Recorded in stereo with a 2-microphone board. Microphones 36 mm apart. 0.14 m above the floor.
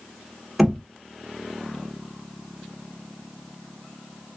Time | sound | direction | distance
0.6 | knocking | centre (ahead or behind) | 0.9 m